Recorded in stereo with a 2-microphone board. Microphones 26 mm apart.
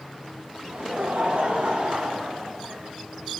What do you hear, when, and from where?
0.6 s laughter: 85° right, 2 m; by 2.8 s 40° right (ahead or behind), 2 m